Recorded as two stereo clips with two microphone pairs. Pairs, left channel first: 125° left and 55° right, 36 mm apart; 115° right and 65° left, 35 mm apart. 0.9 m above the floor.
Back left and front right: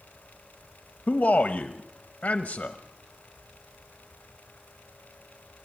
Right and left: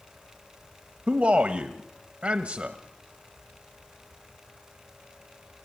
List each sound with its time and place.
1.1 s a man speaking: 95° left, 0.9 m